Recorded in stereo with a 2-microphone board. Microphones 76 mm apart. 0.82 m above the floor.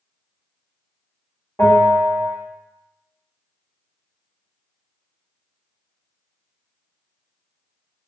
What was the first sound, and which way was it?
A bell, 35° left (ahead or behind).